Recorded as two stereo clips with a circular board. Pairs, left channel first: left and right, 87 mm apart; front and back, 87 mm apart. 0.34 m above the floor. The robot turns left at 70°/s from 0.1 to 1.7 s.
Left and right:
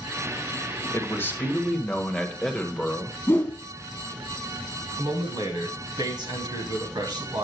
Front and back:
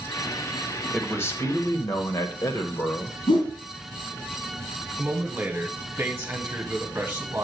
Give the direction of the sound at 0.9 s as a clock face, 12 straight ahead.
10 o'clock.